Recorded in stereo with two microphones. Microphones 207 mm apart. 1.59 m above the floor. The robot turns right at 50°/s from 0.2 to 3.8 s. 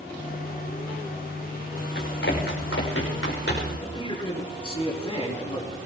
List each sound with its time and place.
1.9 s running footsteps: 50° left (ahead or behind), 5.5 m; by 3.7 s 60° left (ahead or behind), 6 m
3.8 s a man speaking: 25° left (ahead or behind), 4 m